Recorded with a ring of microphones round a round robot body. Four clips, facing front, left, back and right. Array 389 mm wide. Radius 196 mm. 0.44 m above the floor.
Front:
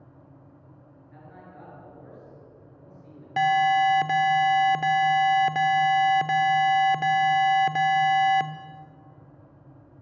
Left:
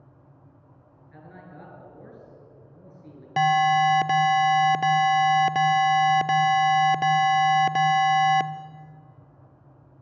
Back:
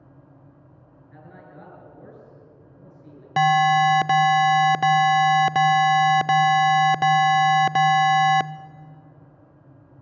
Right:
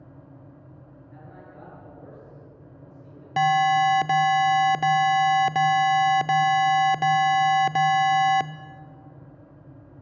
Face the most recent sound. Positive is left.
turn(degrees=175)